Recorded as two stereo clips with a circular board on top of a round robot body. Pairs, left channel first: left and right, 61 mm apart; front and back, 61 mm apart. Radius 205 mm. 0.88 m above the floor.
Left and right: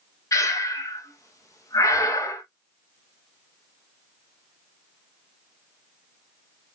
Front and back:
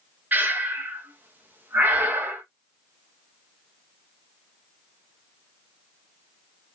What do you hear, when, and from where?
0.3 s breathing: 120° left, 1.1 m